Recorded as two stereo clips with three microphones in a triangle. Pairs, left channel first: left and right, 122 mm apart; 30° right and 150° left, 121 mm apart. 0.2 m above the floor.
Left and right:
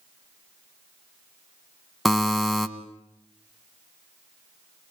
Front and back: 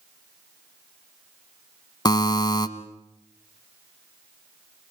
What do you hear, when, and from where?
2.0 s a buzzer: straight ahead, 1.7 m